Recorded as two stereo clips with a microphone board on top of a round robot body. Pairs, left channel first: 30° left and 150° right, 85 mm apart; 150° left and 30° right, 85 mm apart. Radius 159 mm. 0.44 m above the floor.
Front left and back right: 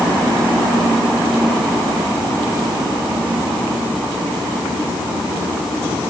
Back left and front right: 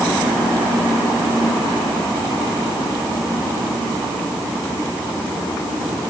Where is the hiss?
I don't hear a hiss.